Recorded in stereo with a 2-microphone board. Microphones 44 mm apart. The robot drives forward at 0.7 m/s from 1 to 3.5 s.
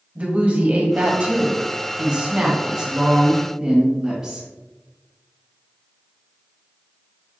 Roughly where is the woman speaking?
Right.